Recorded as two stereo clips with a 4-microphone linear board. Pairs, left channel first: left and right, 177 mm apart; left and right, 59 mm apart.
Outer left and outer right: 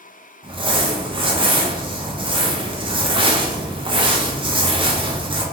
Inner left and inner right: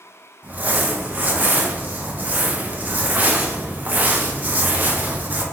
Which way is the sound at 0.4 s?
30° right (ahead or behind).